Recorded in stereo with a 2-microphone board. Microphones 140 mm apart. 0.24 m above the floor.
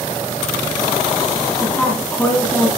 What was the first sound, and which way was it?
A woman speaking, 10° left (ahead or behind).